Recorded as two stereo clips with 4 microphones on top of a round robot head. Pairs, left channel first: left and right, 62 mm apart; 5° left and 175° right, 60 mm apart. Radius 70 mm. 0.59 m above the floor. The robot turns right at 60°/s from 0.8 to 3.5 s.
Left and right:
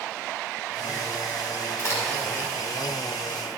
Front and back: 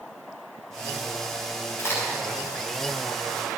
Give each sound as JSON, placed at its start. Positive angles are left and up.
{"t": 1.8, "sound": "a crack", "azimuth_deg": 45, "distance_m": 3.5}